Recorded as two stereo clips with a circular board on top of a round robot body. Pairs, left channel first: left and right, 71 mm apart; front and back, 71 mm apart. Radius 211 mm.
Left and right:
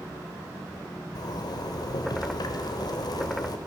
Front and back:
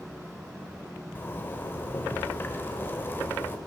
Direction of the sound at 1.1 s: 65° left.